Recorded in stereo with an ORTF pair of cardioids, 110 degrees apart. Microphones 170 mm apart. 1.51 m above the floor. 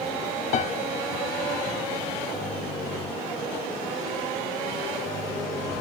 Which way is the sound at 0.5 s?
45° left.